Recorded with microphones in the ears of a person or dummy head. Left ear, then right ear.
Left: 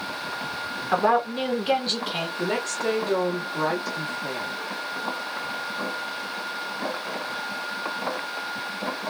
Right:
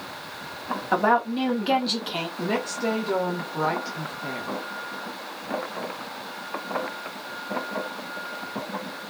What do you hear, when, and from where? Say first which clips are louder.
0.9 s a woman speaking: even; 5° right (ahead or behind), 1.8 m
2.4 s a woman speaking: even; 5° right (ahead or behind), 1.2 m